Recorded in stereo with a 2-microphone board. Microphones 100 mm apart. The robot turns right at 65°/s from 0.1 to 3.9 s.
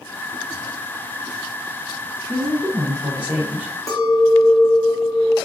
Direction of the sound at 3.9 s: 35° left (ahead or behind).